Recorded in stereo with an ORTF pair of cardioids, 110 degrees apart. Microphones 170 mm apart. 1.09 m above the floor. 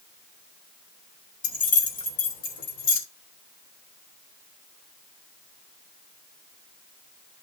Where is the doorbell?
I don't hear a doorbell.